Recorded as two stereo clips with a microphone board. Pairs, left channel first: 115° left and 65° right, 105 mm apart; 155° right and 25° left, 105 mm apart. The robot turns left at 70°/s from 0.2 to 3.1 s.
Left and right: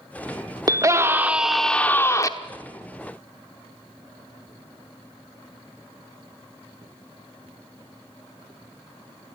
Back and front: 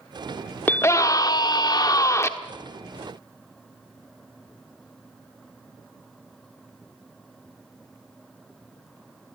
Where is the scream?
95° right, 1.0 m; by 2.3 s 150° left, 1.0 m.